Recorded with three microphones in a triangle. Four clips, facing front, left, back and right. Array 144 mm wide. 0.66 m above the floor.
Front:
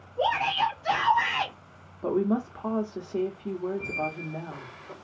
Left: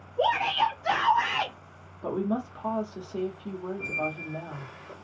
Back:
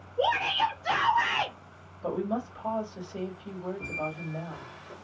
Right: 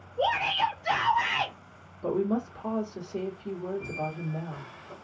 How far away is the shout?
About 1.5 m.